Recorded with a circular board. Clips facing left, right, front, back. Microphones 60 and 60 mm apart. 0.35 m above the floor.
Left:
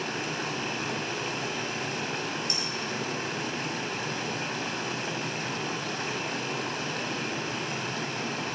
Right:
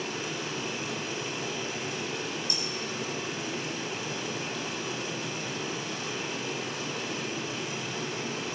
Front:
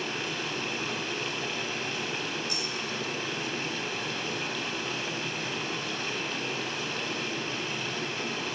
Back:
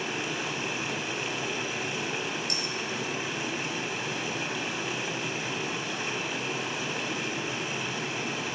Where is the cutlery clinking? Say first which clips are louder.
Left 2 dB, back 1 dB; 155° left, 5 m.